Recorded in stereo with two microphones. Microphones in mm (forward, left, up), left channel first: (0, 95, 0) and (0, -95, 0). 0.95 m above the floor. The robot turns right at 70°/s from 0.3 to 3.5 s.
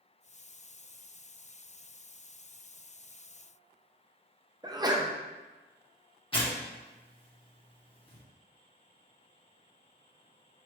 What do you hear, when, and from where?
4.6 s a sneeze: 20° right (ahead or behind), 0.7 m
6.3 s tearing paper: 30° left (ahead or behind), 0.9 m